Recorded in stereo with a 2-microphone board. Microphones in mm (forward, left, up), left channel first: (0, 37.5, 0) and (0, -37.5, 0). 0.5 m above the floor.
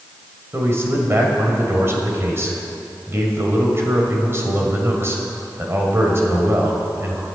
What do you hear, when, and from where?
0.5 s a man speaking: 35° right (ahead or behind), 2 m